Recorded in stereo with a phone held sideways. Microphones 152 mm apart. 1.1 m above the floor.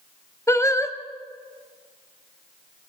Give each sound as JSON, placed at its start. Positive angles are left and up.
{"t": 0.5, "sound": "singing", "side_deg": 20, "distance_m": 1.3}